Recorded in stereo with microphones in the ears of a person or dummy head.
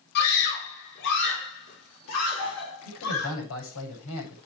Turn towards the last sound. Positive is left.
turn(degrees=80)